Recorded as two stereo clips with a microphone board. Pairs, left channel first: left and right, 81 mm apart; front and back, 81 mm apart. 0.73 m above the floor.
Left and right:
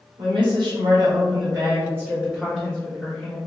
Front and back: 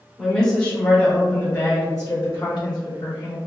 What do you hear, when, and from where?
0.2 s a woman speaking: 85° right, 1.2 m; by 3.4 s 20° left, 1.0 m